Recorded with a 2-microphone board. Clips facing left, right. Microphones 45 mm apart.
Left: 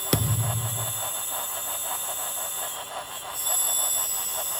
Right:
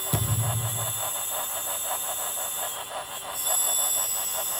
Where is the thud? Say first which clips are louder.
Left 3 dB; 85° left, 1.6 m.